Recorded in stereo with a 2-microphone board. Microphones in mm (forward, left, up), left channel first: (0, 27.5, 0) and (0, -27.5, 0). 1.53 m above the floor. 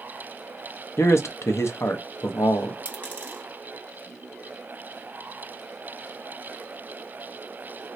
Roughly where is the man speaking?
Left.